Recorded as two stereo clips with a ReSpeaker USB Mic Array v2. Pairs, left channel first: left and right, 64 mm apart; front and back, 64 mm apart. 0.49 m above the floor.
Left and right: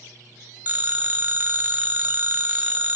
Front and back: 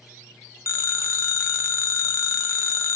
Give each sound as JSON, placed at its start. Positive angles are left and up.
{"t": 0.7, "sound": "a phone ringing", "azimuth_deg": -35, "distance_m": 0.6}